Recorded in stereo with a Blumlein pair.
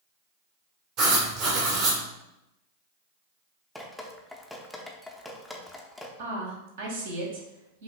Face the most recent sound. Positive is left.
turn(degrees=-60)